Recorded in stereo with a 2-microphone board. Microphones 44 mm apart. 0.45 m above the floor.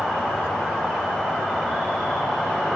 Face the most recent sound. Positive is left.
turn(degrees=10)  # may be behind; listen again after turning